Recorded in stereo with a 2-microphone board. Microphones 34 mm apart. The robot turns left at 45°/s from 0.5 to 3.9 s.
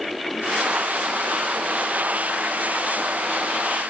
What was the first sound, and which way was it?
Only background noise.